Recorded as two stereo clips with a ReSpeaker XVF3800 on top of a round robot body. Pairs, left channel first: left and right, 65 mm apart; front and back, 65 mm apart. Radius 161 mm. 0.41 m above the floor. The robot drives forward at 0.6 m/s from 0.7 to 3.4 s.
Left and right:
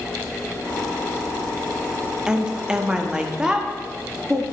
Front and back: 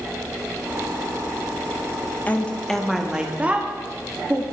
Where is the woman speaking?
25° right, 1.0 m; by 4.4 s 150° right, 1.0 m.